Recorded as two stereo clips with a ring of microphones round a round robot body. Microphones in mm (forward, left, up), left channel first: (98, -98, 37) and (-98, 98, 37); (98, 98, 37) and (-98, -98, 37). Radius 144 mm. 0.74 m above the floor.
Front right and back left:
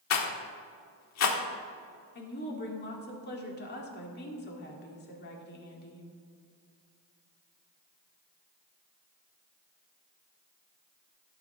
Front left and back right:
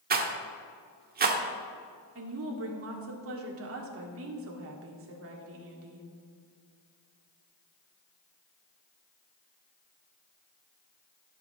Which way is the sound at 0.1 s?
75° right.